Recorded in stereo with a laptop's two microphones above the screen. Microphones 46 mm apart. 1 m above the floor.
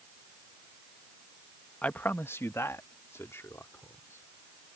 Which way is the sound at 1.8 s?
30° left (ahead or behind).